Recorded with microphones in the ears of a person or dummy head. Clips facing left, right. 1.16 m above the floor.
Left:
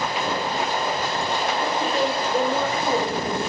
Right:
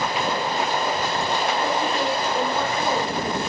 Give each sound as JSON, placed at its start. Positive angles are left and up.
{"t": 1.6, "sound": "a woman speaking", "side_deg": 30, "distance_m": 4.5}